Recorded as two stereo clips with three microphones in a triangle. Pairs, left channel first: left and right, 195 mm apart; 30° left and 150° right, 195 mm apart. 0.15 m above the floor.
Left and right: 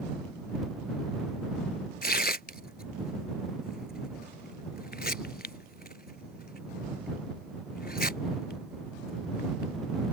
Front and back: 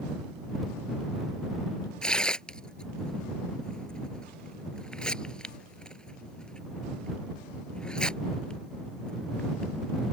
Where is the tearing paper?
115° left.